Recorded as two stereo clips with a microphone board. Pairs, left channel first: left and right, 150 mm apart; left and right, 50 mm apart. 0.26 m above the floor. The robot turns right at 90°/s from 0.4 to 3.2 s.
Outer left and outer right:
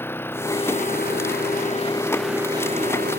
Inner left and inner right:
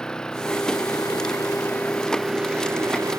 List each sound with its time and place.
0.0 s an engine running: 15° left; by 3.2 s 95° right